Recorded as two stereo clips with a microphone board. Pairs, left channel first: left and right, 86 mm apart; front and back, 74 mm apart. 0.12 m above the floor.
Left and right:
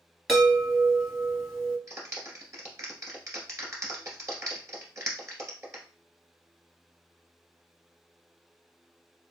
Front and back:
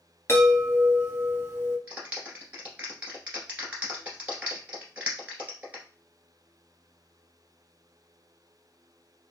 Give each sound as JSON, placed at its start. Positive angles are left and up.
{"t": 0.3, "sound": "a chime", "azimuth_deg": -5, "distance_m": 1.8}
{"t": 1.9, "sound": "a clap", "azimuth_deg": -120, "distance_m": 1.7}